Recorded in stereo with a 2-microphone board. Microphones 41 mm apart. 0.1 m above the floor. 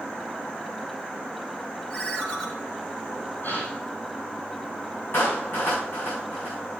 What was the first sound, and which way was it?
A ringtone, 20° left (ahead or behind).